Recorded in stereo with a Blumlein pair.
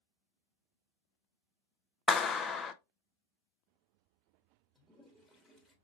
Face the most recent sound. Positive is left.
turn(degrees=0)